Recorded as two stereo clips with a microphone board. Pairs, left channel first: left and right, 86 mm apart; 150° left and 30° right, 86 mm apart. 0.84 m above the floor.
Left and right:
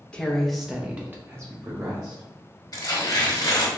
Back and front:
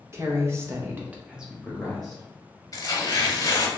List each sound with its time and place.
0.1 s a woman speaking: 15° left, 0.8 m; by 2.2 s 125° right, 1.0 m
2.7 s tearing paper: 120° left, 0.9 m